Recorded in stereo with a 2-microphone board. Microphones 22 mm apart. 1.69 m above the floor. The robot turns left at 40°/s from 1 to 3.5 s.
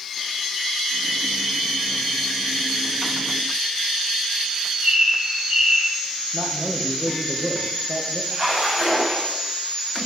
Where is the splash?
25° right (ahead or behind), 7.5 m.